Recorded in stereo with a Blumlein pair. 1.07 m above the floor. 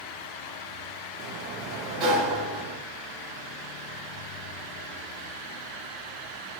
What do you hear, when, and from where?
1.2 s a sliding door: 35° right, 0.6 m